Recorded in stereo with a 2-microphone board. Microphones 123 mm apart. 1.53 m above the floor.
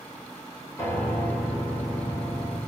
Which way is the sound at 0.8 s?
20° left (ahead or behind).